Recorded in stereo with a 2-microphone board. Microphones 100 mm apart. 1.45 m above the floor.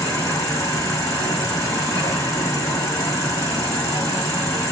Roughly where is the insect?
Left.